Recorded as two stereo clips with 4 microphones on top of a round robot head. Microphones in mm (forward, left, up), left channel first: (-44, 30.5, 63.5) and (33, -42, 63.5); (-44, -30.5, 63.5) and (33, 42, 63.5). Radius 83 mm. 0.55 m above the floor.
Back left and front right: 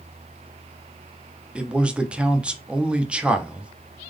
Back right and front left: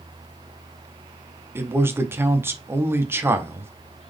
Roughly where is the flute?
I don't hear a flute.